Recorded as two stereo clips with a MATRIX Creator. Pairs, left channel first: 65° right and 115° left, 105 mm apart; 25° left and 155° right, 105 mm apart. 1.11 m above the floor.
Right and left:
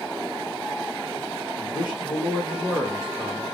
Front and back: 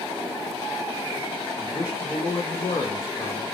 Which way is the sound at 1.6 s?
25° right.